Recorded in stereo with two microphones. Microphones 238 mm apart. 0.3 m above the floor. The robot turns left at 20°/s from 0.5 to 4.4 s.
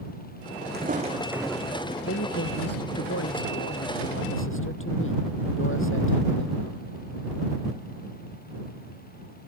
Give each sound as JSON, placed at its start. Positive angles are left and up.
{"t": 0.7, "sound": "footsteps", "side_deg": -45}
{"t": 2.0, "sound": "a man speaking", "azimuth_deg": 105}